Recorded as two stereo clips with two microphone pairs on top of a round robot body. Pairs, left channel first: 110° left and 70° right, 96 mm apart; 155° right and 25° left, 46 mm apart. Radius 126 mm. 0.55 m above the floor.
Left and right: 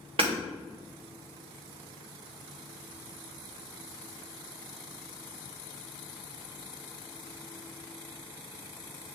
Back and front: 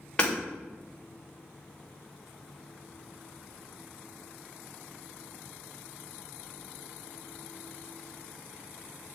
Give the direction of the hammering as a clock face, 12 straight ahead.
3 o'clock.